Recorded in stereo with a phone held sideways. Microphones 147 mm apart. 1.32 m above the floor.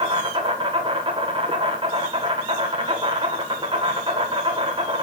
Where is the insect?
35° right (ahead or behind), 2.0 m.